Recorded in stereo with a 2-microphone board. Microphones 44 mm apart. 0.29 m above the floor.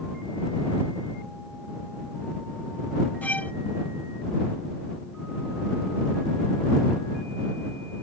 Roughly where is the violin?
Left.